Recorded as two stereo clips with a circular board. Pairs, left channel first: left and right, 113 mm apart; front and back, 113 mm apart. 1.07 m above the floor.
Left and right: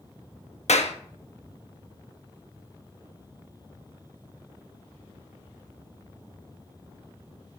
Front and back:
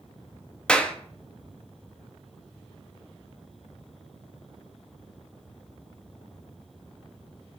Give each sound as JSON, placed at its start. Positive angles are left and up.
{"t": 0.7, "sound": "a clap", "azimuth_deg": 80, "distance_m": 0.8}